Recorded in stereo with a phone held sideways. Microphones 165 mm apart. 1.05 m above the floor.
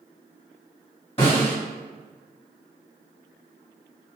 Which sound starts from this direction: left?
A snare drum, at 1.2 s.